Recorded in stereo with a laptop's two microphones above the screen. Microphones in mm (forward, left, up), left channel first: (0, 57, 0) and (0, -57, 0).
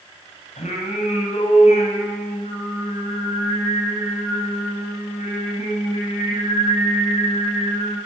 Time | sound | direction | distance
0.6 | singing | 80° left | 8 m